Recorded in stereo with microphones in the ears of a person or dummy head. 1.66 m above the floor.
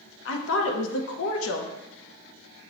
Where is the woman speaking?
80° left, 0.8 m.